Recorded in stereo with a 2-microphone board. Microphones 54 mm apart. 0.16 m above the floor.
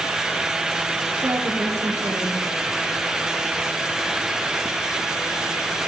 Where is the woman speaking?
75° right (ahead or behind), 8 m.